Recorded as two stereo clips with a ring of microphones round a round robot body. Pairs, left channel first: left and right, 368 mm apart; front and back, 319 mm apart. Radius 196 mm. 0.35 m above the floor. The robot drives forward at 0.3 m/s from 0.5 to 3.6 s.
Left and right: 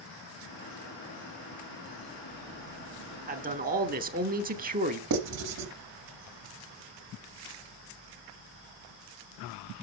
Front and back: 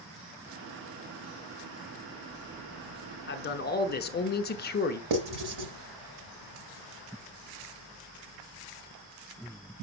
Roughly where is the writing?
Behind right.